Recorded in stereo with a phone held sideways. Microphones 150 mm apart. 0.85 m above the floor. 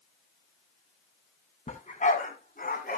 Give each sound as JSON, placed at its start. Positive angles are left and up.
{"t": 1.7, "sound": "a dog barking", "side_deg": 55, "distance_m": 2.5}